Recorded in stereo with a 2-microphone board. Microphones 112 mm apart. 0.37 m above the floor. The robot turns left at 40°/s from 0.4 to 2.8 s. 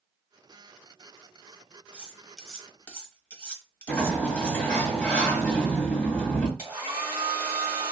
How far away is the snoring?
I don't hear snoring.